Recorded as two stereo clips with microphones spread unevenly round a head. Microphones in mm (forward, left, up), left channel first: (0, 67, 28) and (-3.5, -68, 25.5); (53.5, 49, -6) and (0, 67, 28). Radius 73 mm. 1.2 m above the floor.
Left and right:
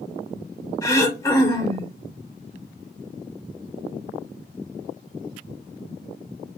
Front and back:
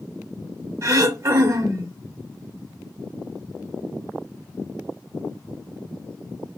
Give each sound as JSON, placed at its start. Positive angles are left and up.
{"t": 0.8, "sound": "throat clearing", "azimuth_deg": 155, "distance_m": 1.9}